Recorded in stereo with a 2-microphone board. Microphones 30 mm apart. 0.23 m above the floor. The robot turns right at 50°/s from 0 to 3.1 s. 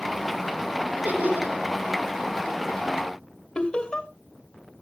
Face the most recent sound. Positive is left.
turn(degrees=25)  # may be behind; listen again after turning